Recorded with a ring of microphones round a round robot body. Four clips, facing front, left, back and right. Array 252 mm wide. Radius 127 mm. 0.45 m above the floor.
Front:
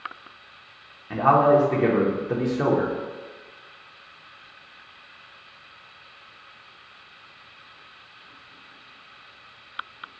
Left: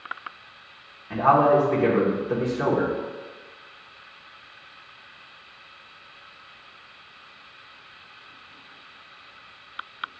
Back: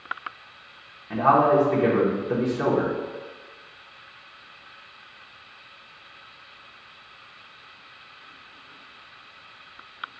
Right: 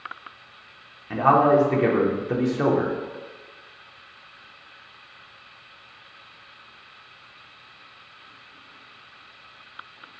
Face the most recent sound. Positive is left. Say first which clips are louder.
# right 1 dB, front 1 dB
turn(degrees=-60)